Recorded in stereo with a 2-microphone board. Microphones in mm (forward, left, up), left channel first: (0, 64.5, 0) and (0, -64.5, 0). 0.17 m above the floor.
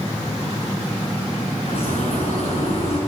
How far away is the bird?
About 9 m.